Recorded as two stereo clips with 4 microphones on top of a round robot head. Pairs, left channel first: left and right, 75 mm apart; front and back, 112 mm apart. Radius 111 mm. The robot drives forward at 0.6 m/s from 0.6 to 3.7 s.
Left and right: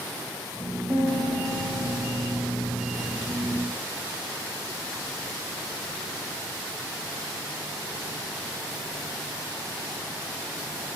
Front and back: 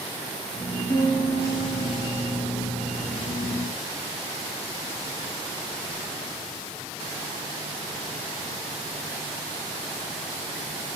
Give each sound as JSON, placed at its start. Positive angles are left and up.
{"t": 0.9, "sound": "a piano", "azimuth_deg": -45, "distance_m": 2.0}